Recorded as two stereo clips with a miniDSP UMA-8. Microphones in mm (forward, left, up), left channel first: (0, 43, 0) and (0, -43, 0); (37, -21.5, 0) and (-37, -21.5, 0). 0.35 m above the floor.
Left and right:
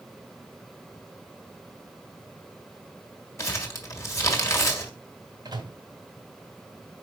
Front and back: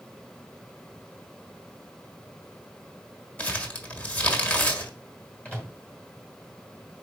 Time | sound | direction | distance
3.4 | crumpling | 55° left | 1.7 m
5.5 | a microwave | 75° right | 2 m